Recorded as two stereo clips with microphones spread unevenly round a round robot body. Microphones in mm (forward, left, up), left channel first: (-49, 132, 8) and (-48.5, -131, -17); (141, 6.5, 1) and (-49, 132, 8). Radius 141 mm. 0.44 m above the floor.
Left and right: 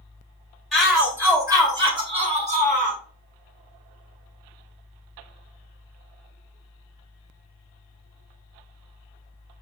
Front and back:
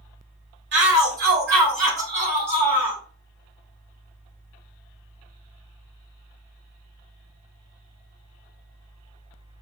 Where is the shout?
175° right, 1.8 m; by 3.0 s 140° right, 2 m.